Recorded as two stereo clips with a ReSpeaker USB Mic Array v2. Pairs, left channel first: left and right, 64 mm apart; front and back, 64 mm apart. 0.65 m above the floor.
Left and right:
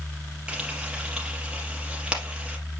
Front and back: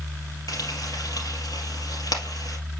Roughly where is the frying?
Ahead.